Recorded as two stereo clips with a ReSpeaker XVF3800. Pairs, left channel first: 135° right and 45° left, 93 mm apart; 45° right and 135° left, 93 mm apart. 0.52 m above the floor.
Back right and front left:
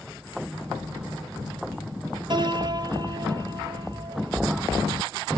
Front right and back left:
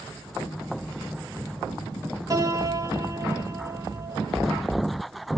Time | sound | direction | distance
2.3 | a piano | 85° left | 2.5 m